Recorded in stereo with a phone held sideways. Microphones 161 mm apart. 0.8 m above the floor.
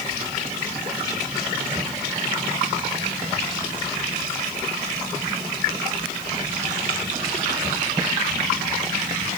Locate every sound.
Only background noise.